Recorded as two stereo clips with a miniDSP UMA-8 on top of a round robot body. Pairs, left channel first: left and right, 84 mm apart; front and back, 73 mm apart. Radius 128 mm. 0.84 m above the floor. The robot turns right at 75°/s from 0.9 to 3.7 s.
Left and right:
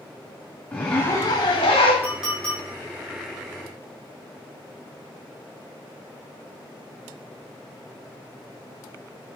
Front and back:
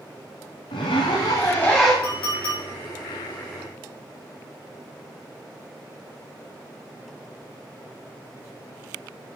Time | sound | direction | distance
0.7 | a zipper | 15° left | 0.9 m
2.0 | a clink | 20° right | 5 m